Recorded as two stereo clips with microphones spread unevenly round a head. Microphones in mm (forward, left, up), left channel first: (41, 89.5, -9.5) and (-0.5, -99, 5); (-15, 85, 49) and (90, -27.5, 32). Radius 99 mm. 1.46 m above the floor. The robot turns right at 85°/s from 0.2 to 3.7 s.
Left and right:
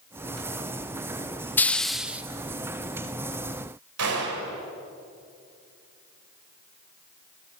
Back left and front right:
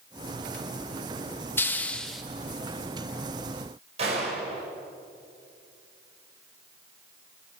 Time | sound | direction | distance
1.6 | a hiss | 155° left | 0.7 m
4.0 | a gunshot | 110° right | 5 m